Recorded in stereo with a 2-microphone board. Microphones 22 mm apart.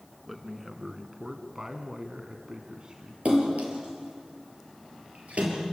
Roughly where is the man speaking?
Centre.